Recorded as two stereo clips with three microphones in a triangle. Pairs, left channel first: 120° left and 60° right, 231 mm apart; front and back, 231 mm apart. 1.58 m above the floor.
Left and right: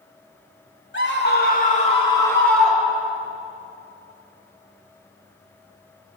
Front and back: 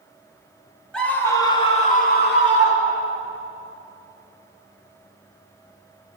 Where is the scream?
85° left, 2.5 m; by 3.2 s 15° left, 2.5 m.